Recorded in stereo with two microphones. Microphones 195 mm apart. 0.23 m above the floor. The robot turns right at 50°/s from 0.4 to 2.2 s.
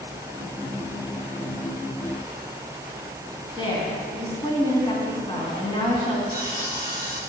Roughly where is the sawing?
Centre.